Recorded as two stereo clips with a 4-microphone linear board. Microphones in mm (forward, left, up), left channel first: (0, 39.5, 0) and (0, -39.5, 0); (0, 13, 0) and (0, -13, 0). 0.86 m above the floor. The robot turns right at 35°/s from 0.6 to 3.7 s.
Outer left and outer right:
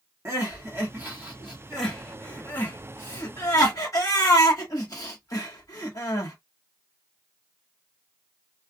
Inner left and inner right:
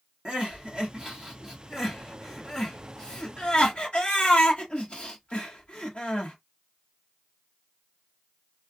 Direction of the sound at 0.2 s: 30° right (ahead or behind).